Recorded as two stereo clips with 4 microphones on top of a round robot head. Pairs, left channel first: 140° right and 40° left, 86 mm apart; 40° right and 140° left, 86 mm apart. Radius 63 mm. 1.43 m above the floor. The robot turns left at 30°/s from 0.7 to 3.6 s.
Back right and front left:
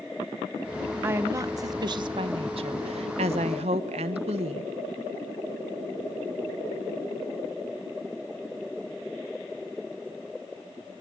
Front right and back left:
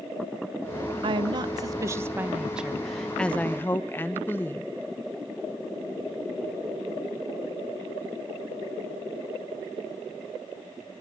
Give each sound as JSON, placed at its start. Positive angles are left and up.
{"t": 1.0, "sound": "a woman speaking", "azimuth_deg": 105, "distance_m": 1.0}